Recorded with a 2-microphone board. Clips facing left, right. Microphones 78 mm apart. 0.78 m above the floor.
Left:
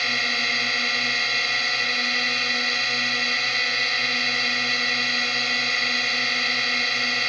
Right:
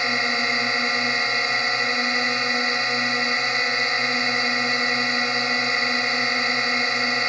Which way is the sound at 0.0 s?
20° right (ahead or behind).